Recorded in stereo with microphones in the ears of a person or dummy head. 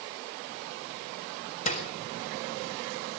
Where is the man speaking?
I don't hear a man speaking.